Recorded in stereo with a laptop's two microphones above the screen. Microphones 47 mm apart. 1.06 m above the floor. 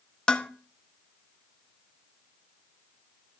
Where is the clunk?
No clunk in this recording.